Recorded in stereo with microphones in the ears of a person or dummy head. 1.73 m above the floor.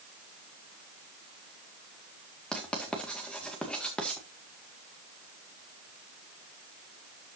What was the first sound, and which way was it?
Writing, 5° left (ahead or behind).